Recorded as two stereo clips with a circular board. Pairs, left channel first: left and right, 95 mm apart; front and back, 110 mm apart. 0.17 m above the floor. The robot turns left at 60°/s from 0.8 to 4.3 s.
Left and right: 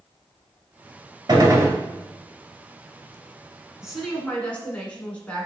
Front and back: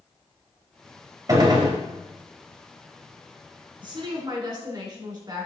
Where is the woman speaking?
170° right, 1.5 m; by 5.5 s 160° left, 1.5 m.